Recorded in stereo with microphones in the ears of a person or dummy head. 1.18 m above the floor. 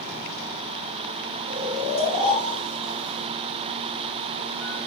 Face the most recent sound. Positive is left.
turn(degrees=-20)  # may be behind; listen again after turning